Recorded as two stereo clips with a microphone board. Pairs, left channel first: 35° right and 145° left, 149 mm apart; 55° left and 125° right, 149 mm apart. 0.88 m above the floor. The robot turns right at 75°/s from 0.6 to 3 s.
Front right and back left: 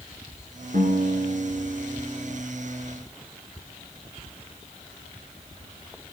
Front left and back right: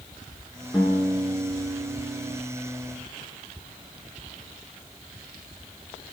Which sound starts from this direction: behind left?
A guitar, at 0.7 s.